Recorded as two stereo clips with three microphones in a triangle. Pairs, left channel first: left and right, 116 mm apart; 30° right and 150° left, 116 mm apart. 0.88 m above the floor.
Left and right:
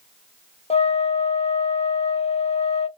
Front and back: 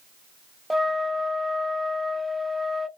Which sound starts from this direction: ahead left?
A flute, at 0.7 s.